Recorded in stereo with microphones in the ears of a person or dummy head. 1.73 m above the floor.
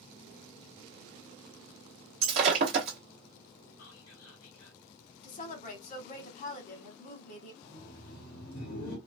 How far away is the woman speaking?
About 1.1 m.